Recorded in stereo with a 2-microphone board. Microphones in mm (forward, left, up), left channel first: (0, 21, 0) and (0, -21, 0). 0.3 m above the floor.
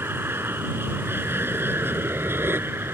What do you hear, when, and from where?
0.0 s an aircraft: 70° right (ahead or behind)